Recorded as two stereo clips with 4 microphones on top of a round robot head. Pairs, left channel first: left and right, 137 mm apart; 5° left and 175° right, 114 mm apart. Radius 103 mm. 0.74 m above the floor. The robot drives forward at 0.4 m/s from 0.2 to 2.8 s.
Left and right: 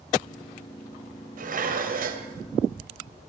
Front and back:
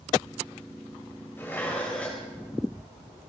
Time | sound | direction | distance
1.4 | dishes clattering | 70° right | 3 m